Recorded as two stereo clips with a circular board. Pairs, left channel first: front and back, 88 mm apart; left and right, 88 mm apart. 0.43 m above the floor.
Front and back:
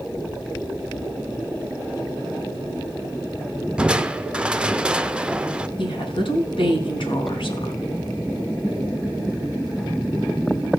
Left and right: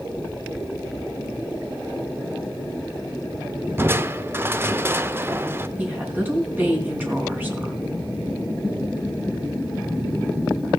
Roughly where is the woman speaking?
Ahead.